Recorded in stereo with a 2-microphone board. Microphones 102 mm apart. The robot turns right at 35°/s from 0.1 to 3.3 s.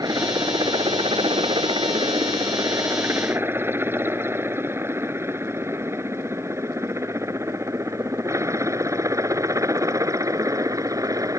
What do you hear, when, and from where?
0.0 s a helicopter: 40° right (ahead or behind); by 11.4 s 35° right (ahead or behind)